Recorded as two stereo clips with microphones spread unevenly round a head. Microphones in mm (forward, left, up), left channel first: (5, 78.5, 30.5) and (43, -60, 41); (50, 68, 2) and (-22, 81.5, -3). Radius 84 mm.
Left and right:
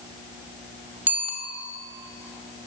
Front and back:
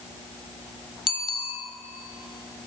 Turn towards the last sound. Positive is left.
turn(degrees=5)